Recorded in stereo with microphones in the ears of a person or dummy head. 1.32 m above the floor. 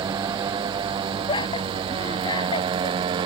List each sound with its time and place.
0.0 s a motorcycle: 20° right (ahead or behind); by 3.3 s 25° right (ahead or behind)
1.3 s laughter: 25° left (ahead or behind)